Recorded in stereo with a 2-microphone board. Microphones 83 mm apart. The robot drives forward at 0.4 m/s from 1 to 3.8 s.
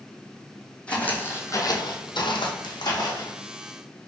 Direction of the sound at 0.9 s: 15° left (ahead or behind).